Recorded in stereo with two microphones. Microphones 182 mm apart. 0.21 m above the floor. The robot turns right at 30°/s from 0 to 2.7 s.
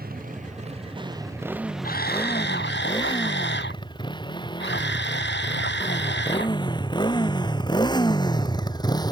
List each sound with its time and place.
0.0 s a motorcycle: 55° right (ahead or behind); by 9.1 s 20° left (ahead or behind)
1.8 s a camera shutter: 55° left (ahead or behind); by 6.6 s 80° left